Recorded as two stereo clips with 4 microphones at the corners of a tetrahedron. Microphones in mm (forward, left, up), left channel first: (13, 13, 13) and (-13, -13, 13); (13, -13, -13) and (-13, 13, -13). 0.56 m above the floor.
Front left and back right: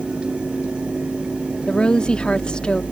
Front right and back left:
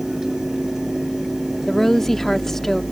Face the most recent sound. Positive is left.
turn(degrees=30)